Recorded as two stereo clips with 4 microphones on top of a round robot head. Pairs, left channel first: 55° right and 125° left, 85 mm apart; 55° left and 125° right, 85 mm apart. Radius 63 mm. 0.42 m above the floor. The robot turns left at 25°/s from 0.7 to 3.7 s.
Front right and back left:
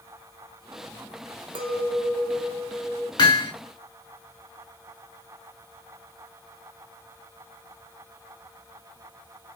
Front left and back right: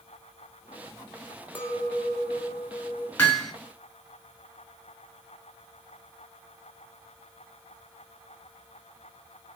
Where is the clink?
120° left, 1.1 m; by 3.1 s 85° left, 1.1 m.